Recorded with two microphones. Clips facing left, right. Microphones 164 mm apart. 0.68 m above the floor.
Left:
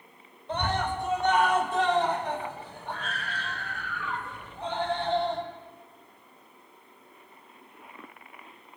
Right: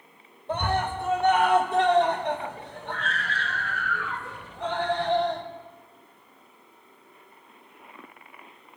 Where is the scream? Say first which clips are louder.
Right 2 dB; 55° right (ahead or behind), 4 m; by 5.4 s 70° right (ahead or behind), 4 m.